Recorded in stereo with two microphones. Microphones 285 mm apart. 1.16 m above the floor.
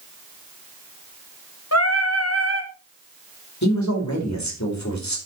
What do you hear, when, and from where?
1.7 s singing: 60° left (ahead or behind), 1.9 m
3.6 s a man speaking: 70° left (ahead or behind), 4.5 m